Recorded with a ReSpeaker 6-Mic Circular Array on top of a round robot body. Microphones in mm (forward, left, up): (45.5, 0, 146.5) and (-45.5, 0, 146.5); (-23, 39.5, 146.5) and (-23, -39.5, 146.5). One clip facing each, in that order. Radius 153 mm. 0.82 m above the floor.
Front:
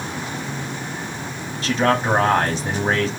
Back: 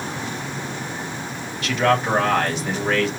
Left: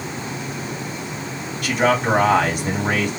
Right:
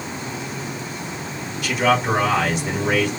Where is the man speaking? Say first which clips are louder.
Even, left 1 dB; 55° left, 2.5 m.